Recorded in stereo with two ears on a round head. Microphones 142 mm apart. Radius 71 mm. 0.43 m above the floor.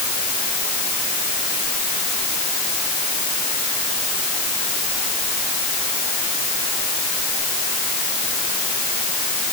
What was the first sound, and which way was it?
Only background noise.